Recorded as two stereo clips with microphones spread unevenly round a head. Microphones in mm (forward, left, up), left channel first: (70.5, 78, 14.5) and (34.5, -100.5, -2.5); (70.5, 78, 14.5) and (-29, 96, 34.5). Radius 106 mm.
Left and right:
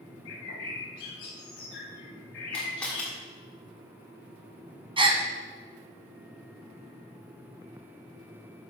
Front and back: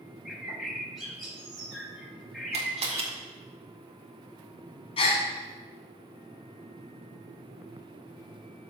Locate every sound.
0.2 s a bird: 85° left, 2.5 m
2.5 s a camera shutter: 160° left, 1.4 m
5.0 s a gasp: 45° right, 1.2 m